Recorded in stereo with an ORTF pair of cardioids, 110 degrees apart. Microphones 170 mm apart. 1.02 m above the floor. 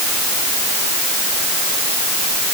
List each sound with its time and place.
Only background noise.